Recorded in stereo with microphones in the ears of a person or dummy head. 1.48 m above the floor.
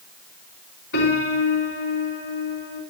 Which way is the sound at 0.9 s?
65° left (ahead or behind).